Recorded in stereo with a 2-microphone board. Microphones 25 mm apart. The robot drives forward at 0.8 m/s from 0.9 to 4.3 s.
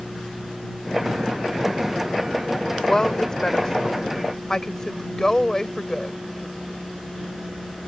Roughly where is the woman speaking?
Left.